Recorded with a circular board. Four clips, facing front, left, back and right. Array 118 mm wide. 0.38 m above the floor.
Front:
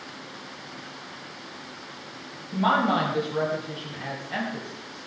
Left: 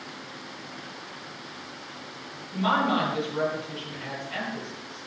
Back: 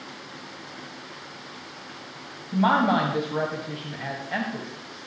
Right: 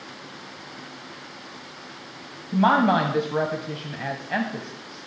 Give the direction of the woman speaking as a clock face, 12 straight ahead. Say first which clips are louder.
Right 6 dB, back 2 dB; 4 o'clock.